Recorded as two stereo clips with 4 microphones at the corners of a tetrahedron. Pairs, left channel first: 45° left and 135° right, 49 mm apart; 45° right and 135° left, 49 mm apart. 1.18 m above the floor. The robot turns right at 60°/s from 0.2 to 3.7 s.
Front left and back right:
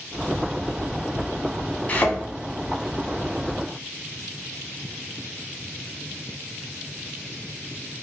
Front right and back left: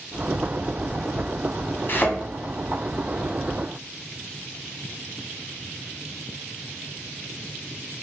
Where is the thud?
10° right, 0.8 m; by 2.2 s 5° left, 0.8 m.